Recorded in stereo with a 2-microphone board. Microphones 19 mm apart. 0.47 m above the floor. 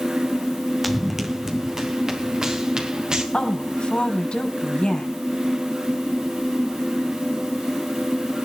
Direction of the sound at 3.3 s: 70° left (ahead or behind).